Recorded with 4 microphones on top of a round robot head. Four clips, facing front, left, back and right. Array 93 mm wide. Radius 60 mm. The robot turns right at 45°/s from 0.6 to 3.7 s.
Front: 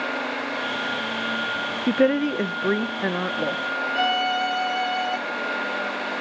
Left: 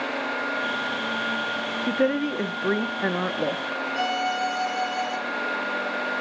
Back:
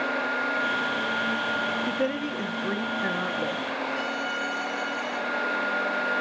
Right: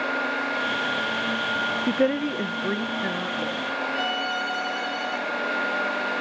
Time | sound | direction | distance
1.9 | a woman speaking | 10° right | 0.7 m
3.9 | a violin | 20° left | 4.5 m